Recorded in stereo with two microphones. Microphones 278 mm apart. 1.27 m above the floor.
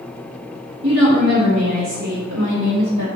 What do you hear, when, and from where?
0.8 s a woman speaking: 45° right (ahead or behind), 2 m; by 3.1 s 80° right, 2 m